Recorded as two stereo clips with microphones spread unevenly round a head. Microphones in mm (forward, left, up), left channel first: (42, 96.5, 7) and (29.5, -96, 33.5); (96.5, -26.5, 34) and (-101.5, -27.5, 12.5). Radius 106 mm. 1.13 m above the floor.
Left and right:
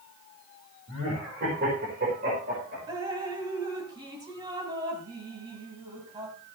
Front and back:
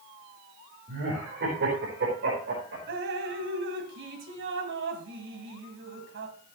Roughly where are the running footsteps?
No running footsteps in this recording.